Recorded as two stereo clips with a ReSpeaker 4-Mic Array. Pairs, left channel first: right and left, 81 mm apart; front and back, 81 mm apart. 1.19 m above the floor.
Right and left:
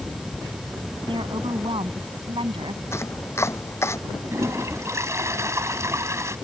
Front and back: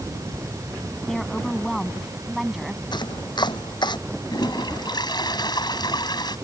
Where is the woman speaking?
85° left; by 2.8 s 95° left.